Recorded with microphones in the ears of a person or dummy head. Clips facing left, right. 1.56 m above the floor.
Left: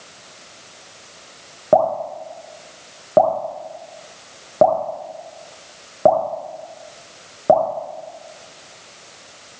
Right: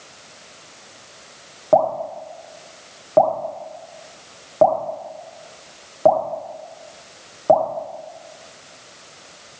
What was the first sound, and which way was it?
Dripping, 30° left (ahead or behind).